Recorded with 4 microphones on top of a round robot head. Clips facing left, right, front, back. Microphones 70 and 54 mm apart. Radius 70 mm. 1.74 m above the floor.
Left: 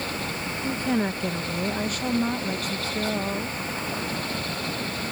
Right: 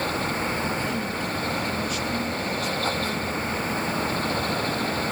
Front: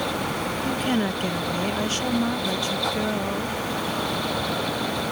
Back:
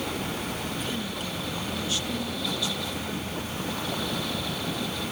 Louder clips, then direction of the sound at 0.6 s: Left 2 dB, front 8 dB; 35° left.